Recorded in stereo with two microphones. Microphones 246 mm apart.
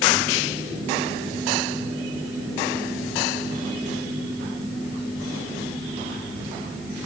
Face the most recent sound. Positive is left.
No sound to turn to.